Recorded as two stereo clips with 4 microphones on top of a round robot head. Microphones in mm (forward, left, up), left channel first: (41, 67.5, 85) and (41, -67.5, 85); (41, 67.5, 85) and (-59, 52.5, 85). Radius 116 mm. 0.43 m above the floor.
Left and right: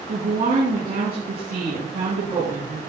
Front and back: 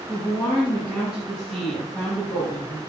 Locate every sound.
0.1 s a woman speaking: 90° right, 5.5 m